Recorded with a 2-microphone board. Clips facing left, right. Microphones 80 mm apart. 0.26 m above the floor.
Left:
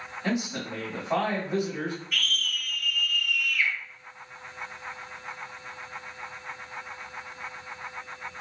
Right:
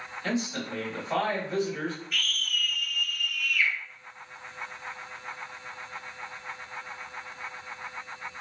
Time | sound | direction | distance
0.2 | a man speaking | 15° left (ahead or behind) | 1.3 m
2.1 | a scream | 5° right (ahead or behind) | 1.7 m